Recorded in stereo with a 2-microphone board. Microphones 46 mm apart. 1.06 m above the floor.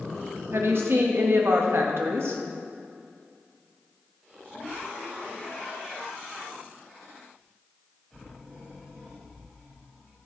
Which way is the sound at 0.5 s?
65° right (ahead or behind).